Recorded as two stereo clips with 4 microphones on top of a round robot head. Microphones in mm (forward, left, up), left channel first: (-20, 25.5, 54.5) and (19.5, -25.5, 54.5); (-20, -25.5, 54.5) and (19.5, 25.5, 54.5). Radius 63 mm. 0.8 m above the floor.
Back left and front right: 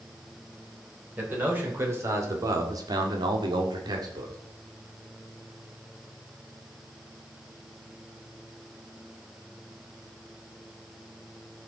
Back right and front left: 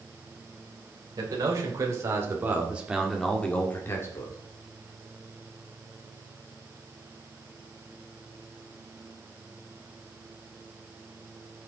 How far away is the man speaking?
About 3.5 m.